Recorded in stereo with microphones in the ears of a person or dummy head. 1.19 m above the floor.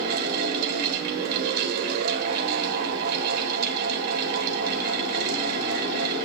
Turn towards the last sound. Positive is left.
turn(degrees=-60)  # may be behind; listen again after turning